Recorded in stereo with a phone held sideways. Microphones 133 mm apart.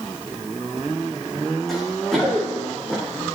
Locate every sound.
1.7 s running footsteps: centre (ahead or behind), 4.5 m; by 3.0 s 10° left (ahead or behind), 4 m